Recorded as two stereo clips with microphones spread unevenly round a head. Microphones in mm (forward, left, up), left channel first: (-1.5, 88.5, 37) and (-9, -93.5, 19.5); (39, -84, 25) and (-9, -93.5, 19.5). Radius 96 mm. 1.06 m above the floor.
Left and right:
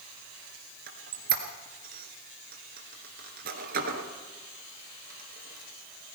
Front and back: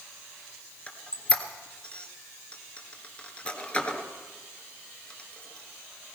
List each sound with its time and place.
0.9 s a squeak: 50° right, 1.9 m